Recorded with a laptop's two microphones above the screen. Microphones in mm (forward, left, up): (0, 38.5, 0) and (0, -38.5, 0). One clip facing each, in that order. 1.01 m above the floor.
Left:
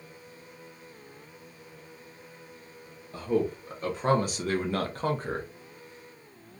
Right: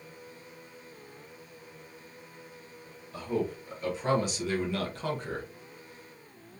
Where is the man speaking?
35° left (ahead or behind), 0.9 m.